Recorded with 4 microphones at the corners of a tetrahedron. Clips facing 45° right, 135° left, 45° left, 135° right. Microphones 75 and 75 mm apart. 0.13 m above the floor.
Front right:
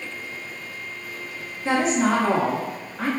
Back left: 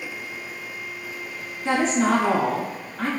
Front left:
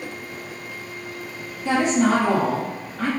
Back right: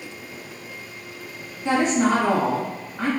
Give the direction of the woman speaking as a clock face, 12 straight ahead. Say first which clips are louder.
Even, front left 1 dB; 4 o'clock.